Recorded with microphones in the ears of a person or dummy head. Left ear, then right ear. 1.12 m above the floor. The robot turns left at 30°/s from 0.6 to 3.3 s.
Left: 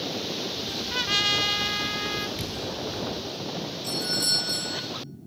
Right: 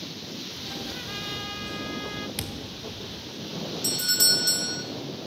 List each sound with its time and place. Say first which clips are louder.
0.9 s a trumpet: left 10 dB; 45° left, 0.5 m; by 2.3 s 5° left, 0.5 m
2.4 s a thud: left 4 dB; 40° right (ahead or behind), 1.1 m; by 2.8 s 30° right (ahead or behind), 1.1 m
3.8 s a doorbell: right 3 dB; 75° right (ahead or behind), 2.0 m